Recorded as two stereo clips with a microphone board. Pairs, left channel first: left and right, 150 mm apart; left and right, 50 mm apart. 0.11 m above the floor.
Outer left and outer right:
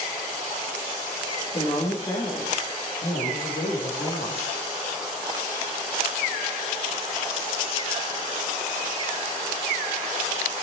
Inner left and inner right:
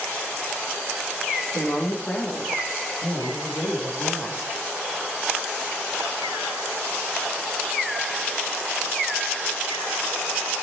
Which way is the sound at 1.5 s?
40° left (ahead or behind).